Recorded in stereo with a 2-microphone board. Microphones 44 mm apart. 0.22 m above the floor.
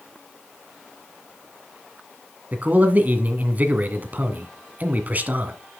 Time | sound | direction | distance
2.5 | a man speaking | 40° right (ahead or behind) | 1.7 m